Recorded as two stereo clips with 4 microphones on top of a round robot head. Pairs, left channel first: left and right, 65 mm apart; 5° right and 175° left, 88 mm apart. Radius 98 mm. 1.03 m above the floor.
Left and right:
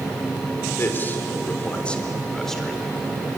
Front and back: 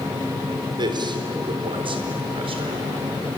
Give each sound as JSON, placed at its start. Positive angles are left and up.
{"t": 0.8, "sound": "a man speaking", "azimuth_deg": 145, "distance_m": 4.0}